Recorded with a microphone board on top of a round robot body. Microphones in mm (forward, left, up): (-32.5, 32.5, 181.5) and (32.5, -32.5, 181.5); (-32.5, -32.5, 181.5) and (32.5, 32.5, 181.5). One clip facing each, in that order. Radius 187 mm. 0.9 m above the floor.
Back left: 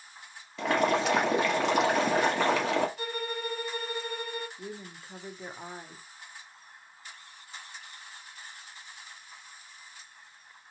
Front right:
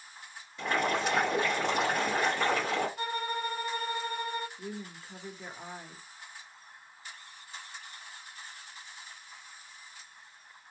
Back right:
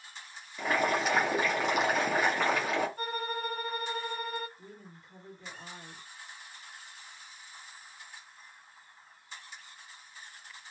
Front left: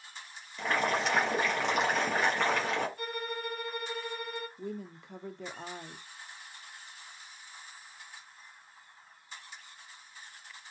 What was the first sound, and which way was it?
Boiling, 140° left.